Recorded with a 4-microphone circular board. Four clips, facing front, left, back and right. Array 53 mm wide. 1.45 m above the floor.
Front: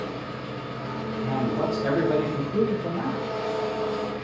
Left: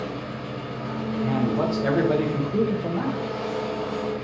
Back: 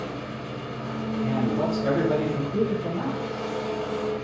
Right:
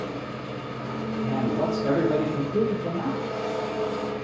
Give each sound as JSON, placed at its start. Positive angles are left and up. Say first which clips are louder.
{"t": 0.0, "sound": "an engine running", "louder": "left 1 dB, even", "azimuth_deg": 25, "distance_m": 0.7}
{"t": 1.2, "sound": "a man speaking", "louder": "left 2 dB, back 1 dB", "azimuth_deg": 80, "distance_m": 0.6}